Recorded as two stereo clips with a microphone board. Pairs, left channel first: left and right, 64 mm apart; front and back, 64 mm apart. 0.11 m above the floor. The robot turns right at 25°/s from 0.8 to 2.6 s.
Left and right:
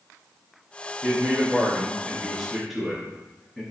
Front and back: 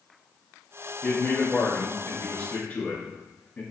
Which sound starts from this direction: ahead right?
A man speaking, at 1.0 s.